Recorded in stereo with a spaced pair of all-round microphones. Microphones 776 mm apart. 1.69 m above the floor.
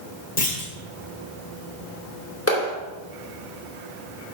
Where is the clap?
15° left (ahead or behind), 3.5 m.